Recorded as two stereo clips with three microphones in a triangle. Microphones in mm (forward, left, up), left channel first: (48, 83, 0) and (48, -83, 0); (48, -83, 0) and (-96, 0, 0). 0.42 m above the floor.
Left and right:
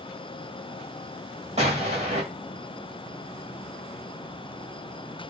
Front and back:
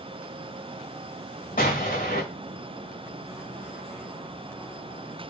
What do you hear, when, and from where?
1.6 s an explosion: 50° right, 1.8 m